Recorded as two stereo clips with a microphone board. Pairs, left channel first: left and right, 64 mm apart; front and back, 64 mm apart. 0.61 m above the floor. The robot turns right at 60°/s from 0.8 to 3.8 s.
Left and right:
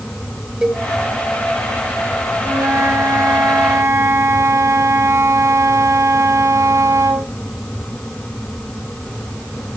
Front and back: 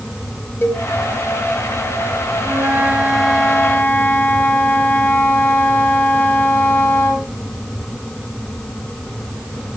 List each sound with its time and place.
0.6 s a cowbell: 20° right, 1.5 m; by 0.8 s 15° right, 1.5 m
2.4 s a flute: 140° right, 1.9 m; by 7.3 s 55° right, 1.9 m